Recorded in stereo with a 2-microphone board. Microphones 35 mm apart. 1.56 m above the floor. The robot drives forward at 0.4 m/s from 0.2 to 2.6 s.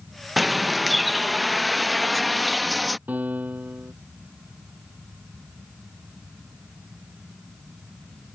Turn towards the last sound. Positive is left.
turn(degrees=-55)  # may be behind; listen again after turning